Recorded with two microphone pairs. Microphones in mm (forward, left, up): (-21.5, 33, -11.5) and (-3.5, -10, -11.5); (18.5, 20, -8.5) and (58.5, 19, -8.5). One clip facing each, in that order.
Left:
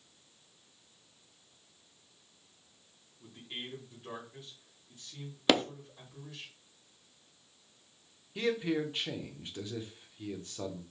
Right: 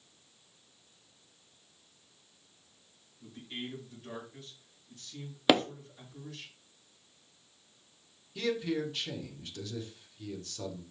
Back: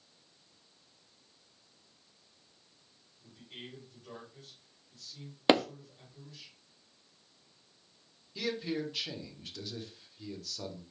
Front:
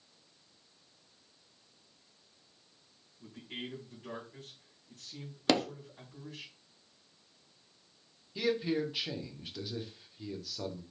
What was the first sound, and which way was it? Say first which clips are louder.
A man speaking: right 2 dB, front 6 dB; 40° left.